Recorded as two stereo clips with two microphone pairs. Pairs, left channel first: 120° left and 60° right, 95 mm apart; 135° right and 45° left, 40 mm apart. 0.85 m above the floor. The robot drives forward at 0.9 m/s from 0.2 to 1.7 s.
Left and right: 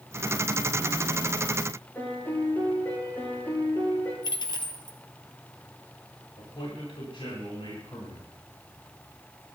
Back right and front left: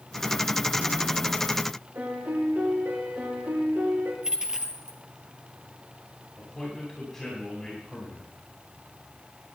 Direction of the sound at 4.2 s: 110° left.